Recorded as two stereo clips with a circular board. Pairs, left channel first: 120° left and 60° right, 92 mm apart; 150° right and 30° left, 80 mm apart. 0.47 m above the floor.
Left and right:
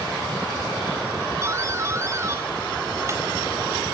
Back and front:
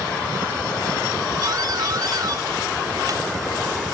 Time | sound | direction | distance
1.4 | a doorbell | 5° right | 3.5 m